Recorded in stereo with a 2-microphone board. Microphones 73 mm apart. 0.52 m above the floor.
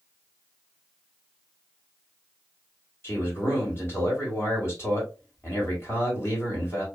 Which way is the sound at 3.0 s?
40° left (ahead or behind).